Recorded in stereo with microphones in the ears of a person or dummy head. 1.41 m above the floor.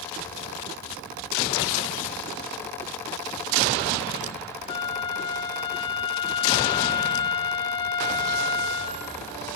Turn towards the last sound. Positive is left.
turn(degrees=30)  # may be behind; listen again after turning